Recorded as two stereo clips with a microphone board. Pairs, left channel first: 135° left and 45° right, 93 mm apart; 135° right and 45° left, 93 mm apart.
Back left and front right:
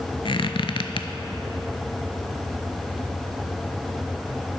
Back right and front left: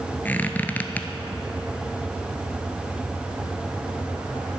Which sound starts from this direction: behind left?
A squeak, at 0.2 s.